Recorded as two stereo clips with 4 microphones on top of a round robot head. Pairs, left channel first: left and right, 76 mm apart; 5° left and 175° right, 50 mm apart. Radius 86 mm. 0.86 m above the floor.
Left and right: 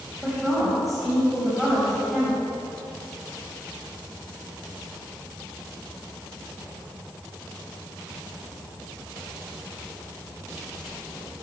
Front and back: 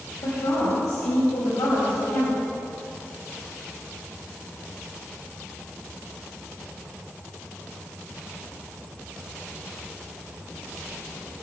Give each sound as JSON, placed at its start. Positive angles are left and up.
{"t": 0.2, "sound": "a woman speaking", "azimuth_deg": 0, "distance_m": 4.5}